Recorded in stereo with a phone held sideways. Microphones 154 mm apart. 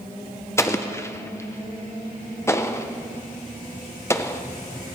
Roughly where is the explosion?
Centre.